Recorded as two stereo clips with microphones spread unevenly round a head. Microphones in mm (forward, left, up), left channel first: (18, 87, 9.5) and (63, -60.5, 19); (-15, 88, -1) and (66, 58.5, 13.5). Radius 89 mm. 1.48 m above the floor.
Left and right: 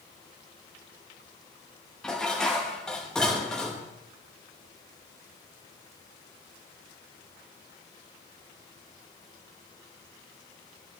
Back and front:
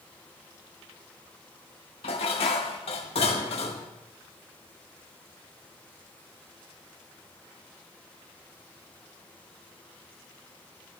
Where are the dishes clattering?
165° right, 1.2 m.